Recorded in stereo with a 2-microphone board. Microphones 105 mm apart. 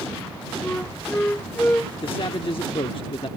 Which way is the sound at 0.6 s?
15° left (ahead or behind).